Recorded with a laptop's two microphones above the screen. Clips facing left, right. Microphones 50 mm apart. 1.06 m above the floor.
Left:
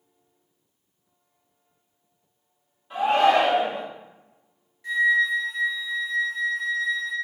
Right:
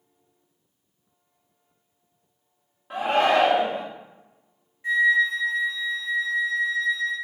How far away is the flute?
About 1.2 m.